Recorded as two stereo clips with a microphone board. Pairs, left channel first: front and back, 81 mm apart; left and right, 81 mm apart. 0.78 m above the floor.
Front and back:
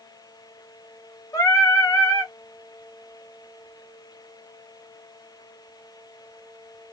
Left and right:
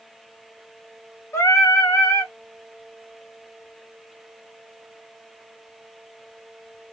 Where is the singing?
40° left, 1.3 m.